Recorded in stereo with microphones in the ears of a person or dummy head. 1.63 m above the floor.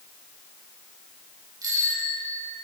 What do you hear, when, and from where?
1.6 s a bicycle bell: 20° right (ahead or behind), 7 m